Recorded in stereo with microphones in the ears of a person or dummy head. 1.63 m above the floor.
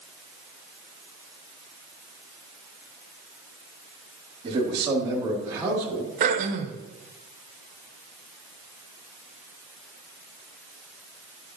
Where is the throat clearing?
45° right (ahead or behind), 1.4 m.